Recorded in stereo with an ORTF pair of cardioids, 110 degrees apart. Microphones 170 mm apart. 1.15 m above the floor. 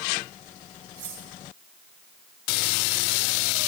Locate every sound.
1.0 s cutlery clinking: 70° right, 9.5 m